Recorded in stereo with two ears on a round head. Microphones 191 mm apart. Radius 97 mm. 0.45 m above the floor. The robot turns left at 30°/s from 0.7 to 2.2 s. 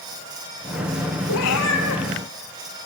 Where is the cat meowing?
85° left, 3 m; by 2.0 s 60° left (ahead or behind), 3 m.